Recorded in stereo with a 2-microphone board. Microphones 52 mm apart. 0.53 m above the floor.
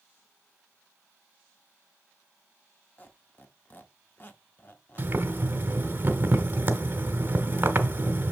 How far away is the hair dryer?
No hair dryer in this recording.